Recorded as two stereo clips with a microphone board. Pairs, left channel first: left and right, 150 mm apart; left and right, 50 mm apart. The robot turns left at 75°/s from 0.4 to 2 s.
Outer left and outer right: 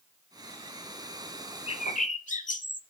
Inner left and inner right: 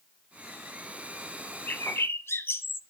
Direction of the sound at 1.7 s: 40° left (ahead or behind).